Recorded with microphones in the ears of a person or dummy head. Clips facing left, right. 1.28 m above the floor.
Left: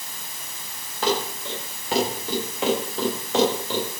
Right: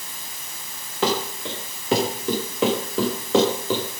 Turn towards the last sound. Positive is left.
turn(degrees=-80)